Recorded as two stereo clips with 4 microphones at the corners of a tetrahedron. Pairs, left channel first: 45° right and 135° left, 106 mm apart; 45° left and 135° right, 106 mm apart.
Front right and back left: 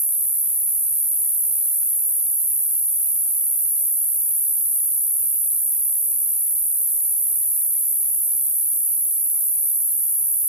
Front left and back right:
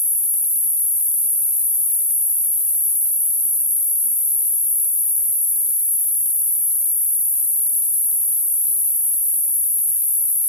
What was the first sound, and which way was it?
An insect, 90° left.